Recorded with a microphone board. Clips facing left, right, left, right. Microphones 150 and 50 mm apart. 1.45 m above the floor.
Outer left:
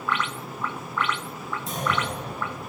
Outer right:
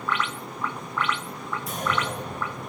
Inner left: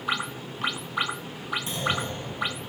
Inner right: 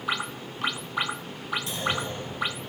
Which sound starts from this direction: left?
A clunk, at 1.7 s.